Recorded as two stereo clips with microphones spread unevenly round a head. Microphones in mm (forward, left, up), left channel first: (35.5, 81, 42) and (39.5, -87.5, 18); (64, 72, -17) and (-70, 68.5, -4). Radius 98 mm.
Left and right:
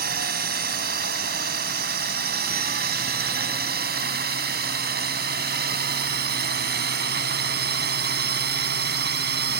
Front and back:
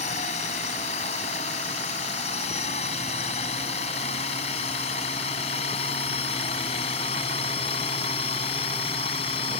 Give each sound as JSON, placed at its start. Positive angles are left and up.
{"t": 0.0, "sound": "a drone", "azimuth_deg": -55}